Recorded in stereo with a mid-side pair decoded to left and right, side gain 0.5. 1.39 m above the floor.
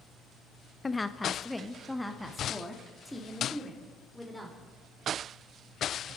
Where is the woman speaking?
25° left, 0.9 m; by 4.7 s straight ahead, 4.5 m.